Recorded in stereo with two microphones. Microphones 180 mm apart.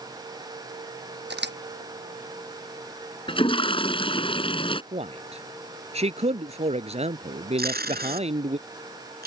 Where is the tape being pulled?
60° right (ahead or behind).